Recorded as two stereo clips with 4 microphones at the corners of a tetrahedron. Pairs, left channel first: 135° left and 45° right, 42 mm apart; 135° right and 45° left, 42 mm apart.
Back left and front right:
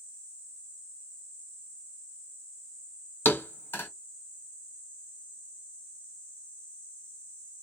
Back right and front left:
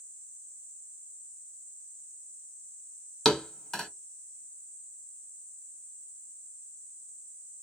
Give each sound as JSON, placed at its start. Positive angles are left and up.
{"t": 3.2, "sound": "a thud", "azimuth_deg": 150, "distance_m": 1.2}